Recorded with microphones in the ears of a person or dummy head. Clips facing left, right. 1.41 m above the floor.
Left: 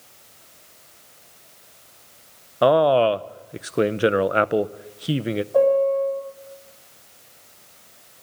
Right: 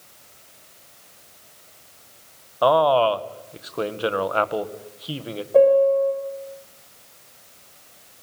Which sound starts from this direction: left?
A man speaking, at 2.6 s.